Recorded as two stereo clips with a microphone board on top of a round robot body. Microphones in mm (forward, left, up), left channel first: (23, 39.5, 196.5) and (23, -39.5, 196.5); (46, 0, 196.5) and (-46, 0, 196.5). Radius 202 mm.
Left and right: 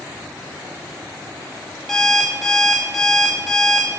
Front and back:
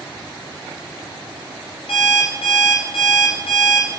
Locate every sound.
1.9 s an alarm clock: 5° left, 0.6 m